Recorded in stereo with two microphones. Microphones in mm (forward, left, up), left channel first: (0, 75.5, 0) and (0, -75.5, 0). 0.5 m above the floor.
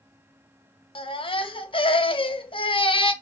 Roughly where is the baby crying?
Left.